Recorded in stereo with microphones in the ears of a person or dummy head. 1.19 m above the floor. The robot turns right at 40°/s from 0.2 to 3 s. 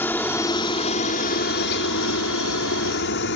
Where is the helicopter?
5° left; by 3.4 s 120° left.